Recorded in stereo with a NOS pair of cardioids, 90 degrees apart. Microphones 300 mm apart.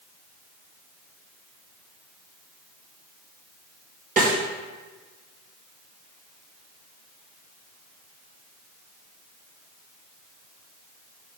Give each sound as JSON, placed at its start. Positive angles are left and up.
{"t": 4.2, "sound": "a snare drum", "azimuth_deg": -30, "distance_m": 1.9}